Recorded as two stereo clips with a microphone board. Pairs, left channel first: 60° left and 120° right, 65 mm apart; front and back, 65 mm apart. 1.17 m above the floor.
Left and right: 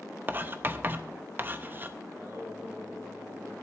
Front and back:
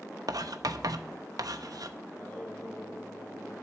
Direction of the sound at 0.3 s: 175° right.